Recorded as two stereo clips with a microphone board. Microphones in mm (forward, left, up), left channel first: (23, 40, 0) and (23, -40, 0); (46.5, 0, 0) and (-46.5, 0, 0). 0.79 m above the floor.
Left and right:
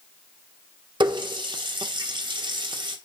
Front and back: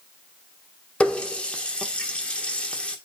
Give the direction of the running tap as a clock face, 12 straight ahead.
3 o'clock.